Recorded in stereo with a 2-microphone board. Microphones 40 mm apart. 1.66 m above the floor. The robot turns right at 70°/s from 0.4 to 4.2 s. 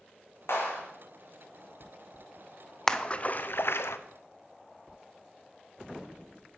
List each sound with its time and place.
0.5 s a clap: 80° left, 4 m; by 0.8 s 70° left (ahead or behind), 4 m
2.9 s a splash: 10° left (ahead or behind), 0.7 m; by 4.0 s 80° left, 0.7 m